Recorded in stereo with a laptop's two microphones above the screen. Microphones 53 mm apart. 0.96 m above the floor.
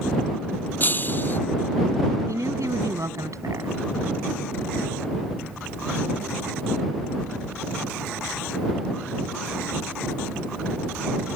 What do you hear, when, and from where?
0.8 s breaking glass: 35° left (ahead or behind)
2.3 s a woman speaking: 80° right